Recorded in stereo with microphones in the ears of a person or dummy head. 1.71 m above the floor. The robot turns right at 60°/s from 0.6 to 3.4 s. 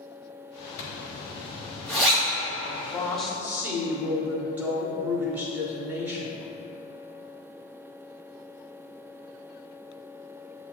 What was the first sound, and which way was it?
A zipper, 70° left (ahead or behind).